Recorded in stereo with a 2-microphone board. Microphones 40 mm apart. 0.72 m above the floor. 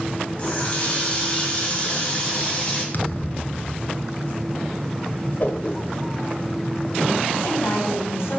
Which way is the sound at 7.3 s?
80° left.